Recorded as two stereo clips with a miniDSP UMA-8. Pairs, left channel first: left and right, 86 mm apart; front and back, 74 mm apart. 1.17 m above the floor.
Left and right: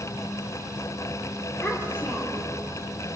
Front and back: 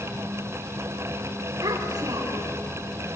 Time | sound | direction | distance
1.6 | a child speaking | 150° left | 2.5 m